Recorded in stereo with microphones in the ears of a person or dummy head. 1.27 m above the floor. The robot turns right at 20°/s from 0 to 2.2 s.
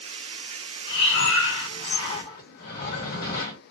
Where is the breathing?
75° left (ahead or behind), 1.2 m; by 3.6 s 60° left (ahead or behind), 1.2 m.